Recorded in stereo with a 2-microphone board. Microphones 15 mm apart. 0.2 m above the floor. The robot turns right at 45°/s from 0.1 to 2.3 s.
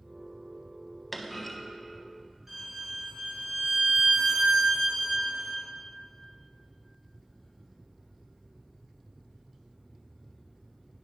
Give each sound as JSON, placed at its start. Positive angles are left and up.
{"t": 1.1, "sound": "a clunk", "side_deg": 0, "distance_m": 0.6}
{"t": 2.5, "sound": "a violin", "side_deg": -15, "distance_m": 2.5}